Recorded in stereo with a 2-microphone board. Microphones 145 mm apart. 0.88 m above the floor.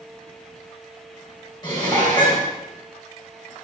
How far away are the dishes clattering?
About 3 m.